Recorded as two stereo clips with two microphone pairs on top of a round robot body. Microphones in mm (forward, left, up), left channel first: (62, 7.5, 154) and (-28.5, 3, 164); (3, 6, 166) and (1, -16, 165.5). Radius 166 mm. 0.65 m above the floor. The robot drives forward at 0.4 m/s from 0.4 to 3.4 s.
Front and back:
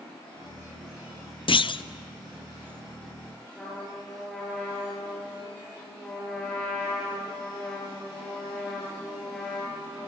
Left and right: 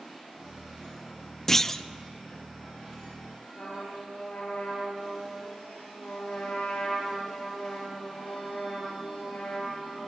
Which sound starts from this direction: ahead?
A clunk, at 1.5 s.